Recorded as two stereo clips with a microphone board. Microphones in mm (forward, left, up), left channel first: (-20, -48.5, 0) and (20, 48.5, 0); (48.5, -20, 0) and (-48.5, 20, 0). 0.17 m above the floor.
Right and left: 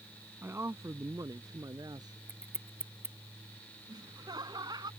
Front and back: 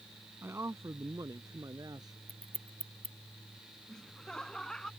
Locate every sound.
0.4 s a man speaking: 115° left; by 2.2 s 110° left
2.3 s scissors: 140° left
3.9 s laughter: 60° left